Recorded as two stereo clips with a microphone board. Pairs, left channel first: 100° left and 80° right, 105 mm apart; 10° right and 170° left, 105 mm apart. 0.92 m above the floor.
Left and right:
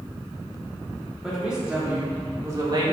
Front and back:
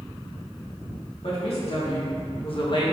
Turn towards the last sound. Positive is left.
turn(degrees=-50)